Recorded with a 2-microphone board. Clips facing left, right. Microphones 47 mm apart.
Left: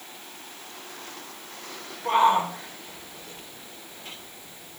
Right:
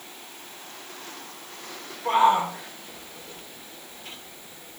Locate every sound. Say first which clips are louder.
2.0 s a shout: right 1 dB; centre (ahead or behind), 5.5 m